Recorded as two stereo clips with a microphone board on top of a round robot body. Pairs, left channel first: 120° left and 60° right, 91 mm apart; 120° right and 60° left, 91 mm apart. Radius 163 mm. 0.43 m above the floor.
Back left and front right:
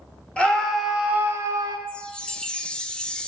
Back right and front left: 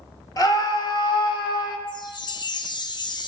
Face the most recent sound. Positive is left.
turn(degrees=-160)